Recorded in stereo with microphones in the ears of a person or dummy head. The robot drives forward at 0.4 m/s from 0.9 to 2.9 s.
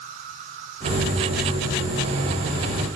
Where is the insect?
45° right (ahead or behind), 6.5 m; by 3.0 s 50° right (ahead or behind), 6 m.